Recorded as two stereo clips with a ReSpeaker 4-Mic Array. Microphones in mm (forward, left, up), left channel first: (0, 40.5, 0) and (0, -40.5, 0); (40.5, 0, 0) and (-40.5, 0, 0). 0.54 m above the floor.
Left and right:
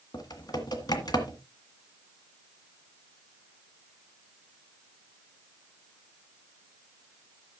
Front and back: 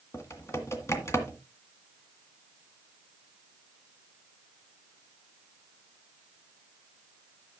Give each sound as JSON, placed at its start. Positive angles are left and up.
{"t": 0.1, "sound": "typing on a keyboard", "azimuth_deg": 55, "distance_m": 1.7}